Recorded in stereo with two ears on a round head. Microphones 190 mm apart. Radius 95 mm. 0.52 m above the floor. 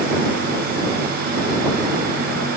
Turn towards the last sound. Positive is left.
No sound to turn to.